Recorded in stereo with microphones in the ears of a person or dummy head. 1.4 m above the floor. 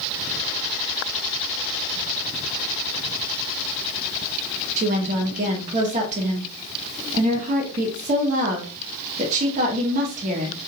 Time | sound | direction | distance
4.8 | a woman speaking | 40° right (ahead or behind) | 1.6 m